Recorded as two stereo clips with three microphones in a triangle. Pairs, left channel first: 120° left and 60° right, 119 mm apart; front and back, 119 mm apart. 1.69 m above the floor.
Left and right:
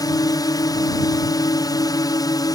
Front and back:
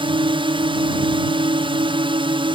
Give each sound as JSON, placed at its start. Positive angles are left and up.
{"t": 0.0, "sound": "a drone", "azimuth_deg": 165}